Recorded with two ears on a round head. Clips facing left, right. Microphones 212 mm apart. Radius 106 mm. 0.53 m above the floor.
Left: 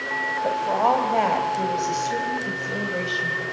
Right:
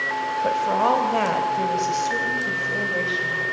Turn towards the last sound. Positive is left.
turn(degrees=20)  # may be behind; listen again after turning